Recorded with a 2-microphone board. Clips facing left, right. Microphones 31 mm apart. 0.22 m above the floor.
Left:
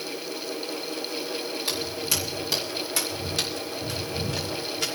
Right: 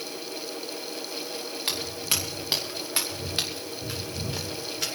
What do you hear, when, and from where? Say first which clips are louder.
1.7 s footsteps: right 1 dB; 55° right (ahead or behind), 4.5 m; by 4.9 s centre (ahead or behind), 3.5 m